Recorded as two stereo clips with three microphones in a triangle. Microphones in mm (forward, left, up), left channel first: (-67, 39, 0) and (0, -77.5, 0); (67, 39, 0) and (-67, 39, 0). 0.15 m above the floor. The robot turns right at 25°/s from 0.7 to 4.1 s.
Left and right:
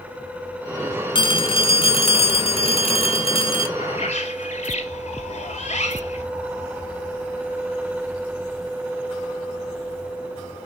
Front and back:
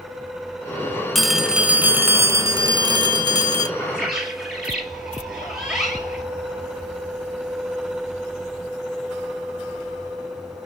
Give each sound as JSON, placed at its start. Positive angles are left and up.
{"t": 1.1, "sound": "a phone ringing", "azimuth_deg": 90, "distance_m": 0.8}
{"t": 3.8, "sound": "a bird", "azimuth_deg": 85, "distance_m": 2.0}